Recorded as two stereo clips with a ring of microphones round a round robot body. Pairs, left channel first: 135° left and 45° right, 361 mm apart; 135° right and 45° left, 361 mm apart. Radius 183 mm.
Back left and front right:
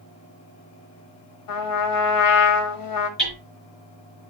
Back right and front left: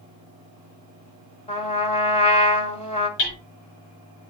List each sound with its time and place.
1.5 s a trumpet: 155° left, 1.5 m
3.2 s hammering: 135° right, 4.5 m